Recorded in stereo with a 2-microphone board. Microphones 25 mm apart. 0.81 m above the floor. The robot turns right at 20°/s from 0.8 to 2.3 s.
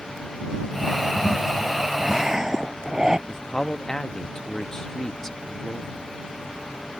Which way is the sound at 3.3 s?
25° left (ahead or behind).